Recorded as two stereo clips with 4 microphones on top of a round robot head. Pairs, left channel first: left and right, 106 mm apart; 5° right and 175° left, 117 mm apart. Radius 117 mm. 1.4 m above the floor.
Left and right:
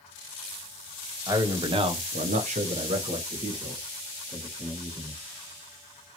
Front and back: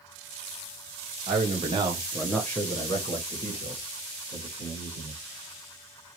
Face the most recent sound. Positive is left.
turn(degrees=-20)